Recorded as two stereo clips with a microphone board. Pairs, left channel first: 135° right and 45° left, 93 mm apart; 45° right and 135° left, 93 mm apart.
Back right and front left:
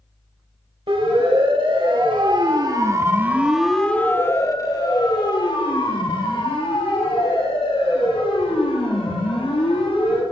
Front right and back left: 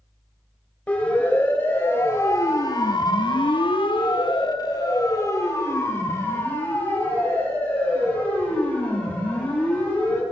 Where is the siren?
30° left, 3.5 m; by 10.2 s 120° right, 8 m.